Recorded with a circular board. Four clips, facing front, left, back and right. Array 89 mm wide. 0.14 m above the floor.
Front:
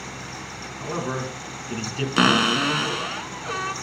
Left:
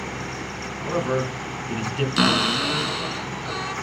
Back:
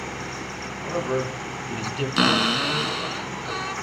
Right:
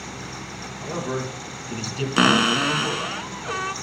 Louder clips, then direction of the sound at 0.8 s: Left 4 dB, back 3 dB; 60° left.